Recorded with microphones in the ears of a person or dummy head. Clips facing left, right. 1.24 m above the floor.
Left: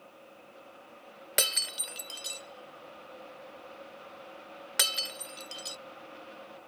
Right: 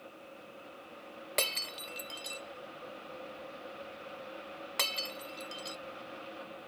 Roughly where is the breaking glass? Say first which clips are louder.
Left 1 dB; centre.